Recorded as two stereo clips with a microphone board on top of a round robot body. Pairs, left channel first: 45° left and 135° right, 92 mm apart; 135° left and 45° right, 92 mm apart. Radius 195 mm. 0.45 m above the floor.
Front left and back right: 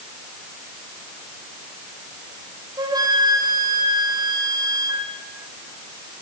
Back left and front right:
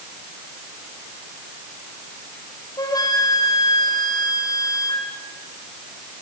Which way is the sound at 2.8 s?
Straight behind.